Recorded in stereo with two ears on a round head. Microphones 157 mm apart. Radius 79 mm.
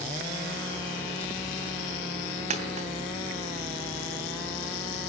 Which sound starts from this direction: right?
A dropped coin, at 2.5 s.